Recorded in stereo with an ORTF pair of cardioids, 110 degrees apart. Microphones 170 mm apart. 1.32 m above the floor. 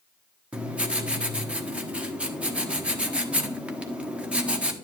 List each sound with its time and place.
0.5 s writing: 5° right, 1.1 m